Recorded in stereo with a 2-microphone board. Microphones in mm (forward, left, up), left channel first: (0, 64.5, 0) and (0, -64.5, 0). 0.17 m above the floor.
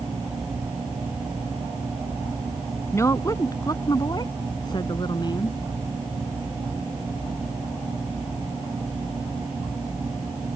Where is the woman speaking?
20° left (ahead or behind); by 5.6 s 35° left (ahead or behind).